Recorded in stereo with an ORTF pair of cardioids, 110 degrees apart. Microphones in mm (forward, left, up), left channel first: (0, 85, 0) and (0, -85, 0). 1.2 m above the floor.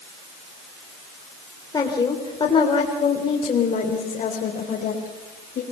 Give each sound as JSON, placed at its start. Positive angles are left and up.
{"t": 1.7, "sound": "a woman speaking", "azimuth_deg": 20, "distance_m": 3.5}